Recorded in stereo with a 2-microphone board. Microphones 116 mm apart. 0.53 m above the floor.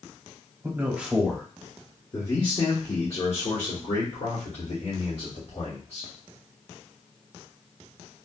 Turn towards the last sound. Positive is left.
turn(degrees=65)  # may be behind; listen again after turning